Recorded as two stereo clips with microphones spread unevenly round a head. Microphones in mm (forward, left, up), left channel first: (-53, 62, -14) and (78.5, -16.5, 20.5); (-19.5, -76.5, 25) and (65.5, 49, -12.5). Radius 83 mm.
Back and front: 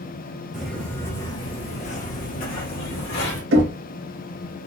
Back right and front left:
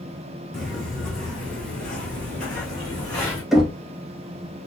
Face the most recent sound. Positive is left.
turn(degrees=-25)